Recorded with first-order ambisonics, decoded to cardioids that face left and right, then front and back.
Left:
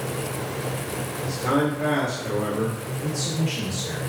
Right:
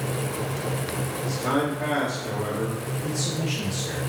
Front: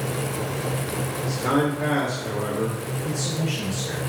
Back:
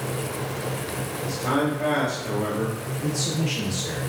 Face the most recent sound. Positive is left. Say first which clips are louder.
# left 2 dB, back 2 dB
turn(degrees=170)